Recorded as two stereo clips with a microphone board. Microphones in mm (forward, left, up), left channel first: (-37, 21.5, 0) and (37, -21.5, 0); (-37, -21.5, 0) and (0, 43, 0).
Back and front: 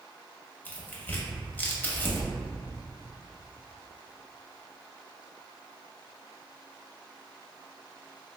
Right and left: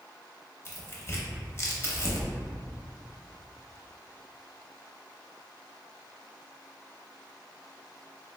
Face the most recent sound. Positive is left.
turn(degrees=-155)